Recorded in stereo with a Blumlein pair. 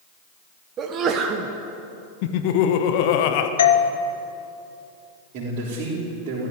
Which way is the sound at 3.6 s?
65° left.